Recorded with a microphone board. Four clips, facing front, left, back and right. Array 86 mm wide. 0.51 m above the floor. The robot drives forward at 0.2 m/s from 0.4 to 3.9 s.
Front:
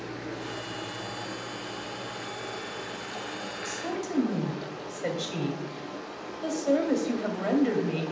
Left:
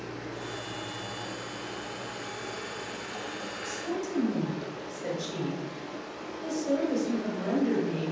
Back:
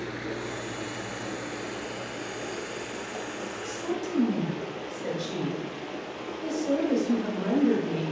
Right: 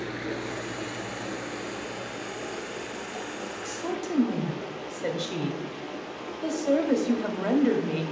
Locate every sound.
0.0 s running water: 120° right, 0.8 m; by 8.1 s 150° right, 1.3 m
3.6 s a woman speaking: 65° right, 1.6 m